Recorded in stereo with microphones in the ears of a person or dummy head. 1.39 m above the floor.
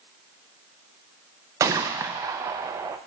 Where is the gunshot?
15° right (ahead or behind), 0.5 m.